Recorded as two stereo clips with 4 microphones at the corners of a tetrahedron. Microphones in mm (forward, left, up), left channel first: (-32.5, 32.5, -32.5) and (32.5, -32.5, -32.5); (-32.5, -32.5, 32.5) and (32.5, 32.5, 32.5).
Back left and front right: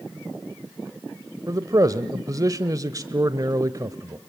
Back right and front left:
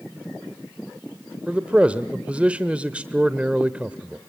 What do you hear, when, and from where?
1.5 s a man speaking: 25° right, 1.0 m